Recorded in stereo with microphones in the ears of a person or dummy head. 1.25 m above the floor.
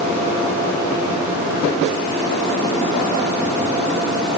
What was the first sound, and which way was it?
Only background noise.